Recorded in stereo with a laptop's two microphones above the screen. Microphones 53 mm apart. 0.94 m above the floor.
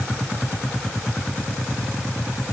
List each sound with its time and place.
Only background noise.